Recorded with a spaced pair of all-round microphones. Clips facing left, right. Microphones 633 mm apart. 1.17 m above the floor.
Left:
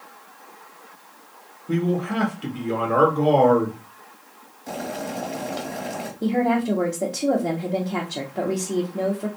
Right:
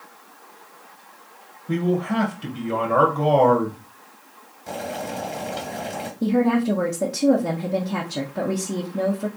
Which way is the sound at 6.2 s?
40° right (ahead or behind).